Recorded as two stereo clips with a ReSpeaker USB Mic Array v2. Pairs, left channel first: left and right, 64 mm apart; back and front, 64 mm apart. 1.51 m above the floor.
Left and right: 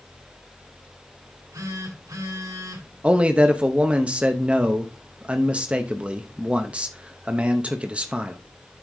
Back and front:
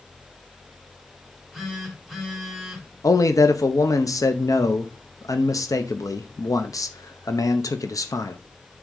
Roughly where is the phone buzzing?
Right.